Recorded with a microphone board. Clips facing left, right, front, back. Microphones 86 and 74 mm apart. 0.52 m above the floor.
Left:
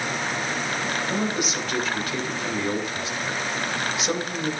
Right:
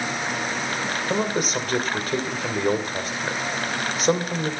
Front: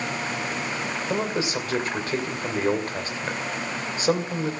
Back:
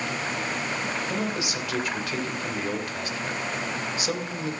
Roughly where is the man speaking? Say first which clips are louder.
Right 5 dB, front 3 dB; ahead right.